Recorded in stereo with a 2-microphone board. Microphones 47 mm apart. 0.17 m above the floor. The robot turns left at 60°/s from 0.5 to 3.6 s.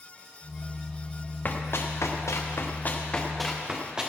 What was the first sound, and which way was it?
Running footsteps, 40° left (ahead or behind).